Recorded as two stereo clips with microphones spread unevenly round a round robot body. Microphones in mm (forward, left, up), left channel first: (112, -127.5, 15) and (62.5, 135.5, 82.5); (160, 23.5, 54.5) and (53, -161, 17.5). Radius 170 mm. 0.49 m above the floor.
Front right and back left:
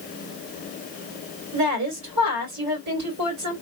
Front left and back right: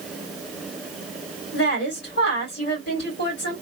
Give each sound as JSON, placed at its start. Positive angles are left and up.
{"t": 1.5, "sound": "a woman speaking", "azimuth_deg": 80, "distance_m": 2.5}